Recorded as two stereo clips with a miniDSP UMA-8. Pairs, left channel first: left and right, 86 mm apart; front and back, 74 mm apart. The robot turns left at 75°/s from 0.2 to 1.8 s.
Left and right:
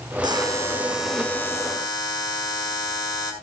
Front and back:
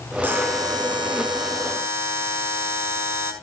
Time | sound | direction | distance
0.2 | a buzzer | 115° right | 5.5 m